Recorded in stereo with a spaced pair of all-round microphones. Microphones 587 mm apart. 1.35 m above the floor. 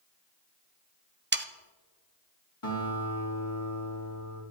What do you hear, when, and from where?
1.3 s sawing: 20° right (ahead or behind), 0.5 m
2.6 s a guitar: 55° left (ahead or behind), 3 m